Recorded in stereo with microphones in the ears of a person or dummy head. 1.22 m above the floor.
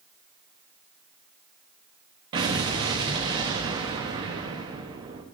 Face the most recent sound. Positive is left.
turn(degrees=-30)  # may be behind; listen again after turning